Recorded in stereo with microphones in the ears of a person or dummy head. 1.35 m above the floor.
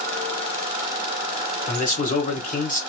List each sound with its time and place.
1.7 s a man speaking: 40° left (ahead or behind), 1.1 m